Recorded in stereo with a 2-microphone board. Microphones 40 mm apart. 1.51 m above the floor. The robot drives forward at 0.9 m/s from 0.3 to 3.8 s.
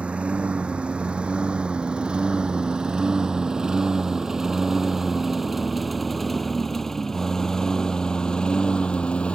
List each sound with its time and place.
0.0 s a lawn mower: 30° right (ahead or behind); by 9.4 s 30° left (ahead or behind)